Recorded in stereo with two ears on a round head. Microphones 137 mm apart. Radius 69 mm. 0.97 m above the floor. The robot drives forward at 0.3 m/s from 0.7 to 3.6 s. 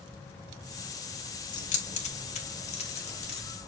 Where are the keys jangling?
50° left (ahead or behind), 1.5 m; by 3.4 s 40° left (ahead or behind), 1.9 m.